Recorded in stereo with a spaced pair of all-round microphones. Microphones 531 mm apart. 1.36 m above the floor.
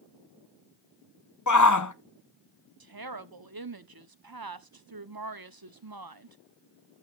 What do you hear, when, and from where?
1.5 s a shout: 35° left (ahead or behind), 0.8 m
2.8 s a woman speaking: 45° right (ahead or behind), 0.8 m